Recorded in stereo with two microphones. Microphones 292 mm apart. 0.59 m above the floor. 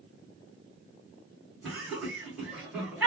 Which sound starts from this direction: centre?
Laughter, at 1.6 s.